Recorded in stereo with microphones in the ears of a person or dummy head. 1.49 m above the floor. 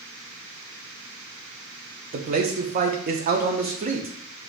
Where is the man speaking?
40° right (ahead or behind), 0.5 m.